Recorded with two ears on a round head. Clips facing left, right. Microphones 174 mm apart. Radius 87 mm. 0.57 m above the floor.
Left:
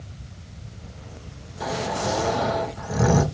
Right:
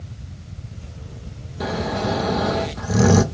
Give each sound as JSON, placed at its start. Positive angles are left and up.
{"t": 1.6, "sound": "snoring", "side_deg": -50, "distance_m": 0.8}